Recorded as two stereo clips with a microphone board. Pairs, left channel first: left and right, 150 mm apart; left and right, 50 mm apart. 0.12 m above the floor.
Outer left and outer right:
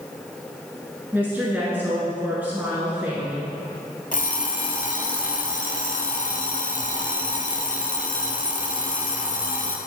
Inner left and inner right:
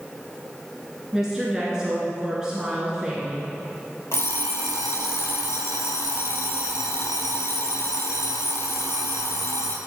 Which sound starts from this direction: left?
An alarm clock, at 4.1 s.